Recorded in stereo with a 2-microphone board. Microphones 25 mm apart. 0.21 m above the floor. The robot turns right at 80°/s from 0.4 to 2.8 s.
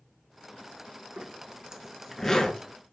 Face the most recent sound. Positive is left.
turn(degrees=55)  # may be behind; listen again after turning